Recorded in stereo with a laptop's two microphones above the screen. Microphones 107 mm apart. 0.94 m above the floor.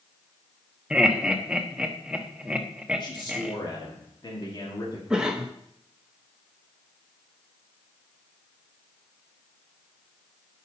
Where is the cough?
10° right (ahead or behind), 0.8 m.